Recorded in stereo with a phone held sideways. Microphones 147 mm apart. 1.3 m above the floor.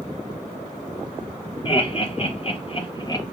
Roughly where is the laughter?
Left.